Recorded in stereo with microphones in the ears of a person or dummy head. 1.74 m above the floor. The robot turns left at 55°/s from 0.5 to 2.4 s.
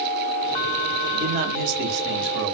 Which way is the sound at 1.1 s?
30° right.